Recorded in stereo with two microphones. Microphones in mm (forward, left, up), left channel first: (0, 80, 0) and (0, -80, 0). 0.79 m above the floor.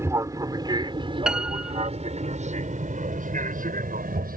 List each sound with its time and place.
0.0 s an aircraft: 20° right (ahead or behind); by 4.4 s 65° right (ahead or behind)
1.3 s a piano: 5° right (ahead or behind)